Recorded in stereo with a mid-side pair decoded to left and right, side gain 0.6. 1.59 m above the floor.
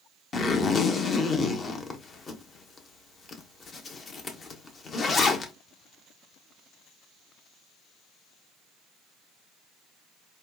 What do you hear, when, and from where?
0.3 s a zipper: 35° left, 0.9 m